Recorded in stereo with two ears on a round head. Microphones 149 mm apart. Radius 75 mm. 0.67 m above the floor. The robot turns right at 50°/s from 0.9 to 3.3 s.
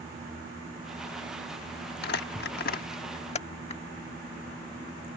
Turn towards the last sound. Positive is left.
turn(degrees=40)  # may be behind; listen again after turning